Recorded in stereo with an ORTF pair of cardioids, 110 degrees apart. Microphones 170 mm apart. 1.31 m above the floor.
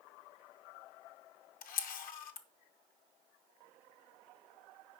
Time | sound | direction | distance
1.6 | a camera shutter | 60° left | 0.7 m